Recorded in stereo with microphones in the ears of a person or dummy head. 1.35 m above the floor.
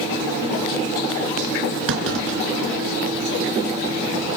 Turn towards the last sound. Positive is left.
turn(degrees=-65)  # may be behind; listen again after turning